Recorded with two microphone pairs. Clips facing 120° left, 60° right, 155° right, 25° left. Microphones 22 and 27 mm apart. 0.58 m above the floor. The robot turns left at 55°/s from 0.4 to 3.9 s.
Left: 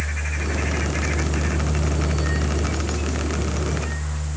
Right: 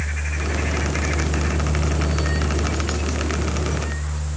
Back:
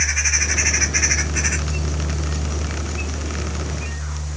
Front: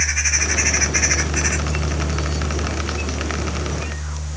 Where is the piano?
I don't hear a piano.